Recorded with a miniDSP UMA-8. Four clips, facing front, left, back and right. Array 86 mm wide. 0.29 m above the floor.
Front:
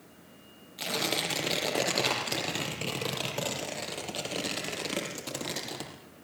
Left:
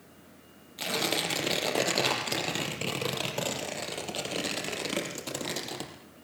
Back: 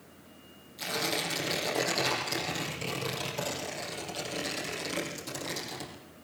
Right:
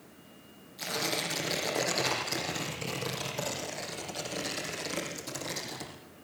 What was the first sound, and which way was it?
Tearing paper, 60° left.